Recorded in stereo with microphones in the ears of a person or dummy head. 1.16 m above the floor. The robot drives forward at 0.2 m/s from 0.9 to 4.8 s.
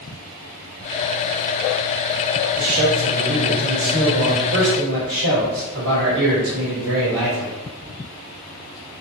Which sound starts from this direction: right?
A man speaking, at 2.6 s.